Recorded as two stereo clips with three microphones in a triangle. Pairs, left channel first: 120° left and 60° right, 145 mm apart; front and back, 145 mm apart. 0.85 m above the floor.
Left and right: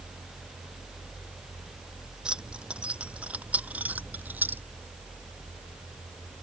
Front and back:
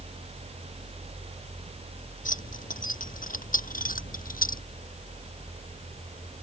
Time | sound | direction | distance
2.2 | keys jangling | 25° left | ?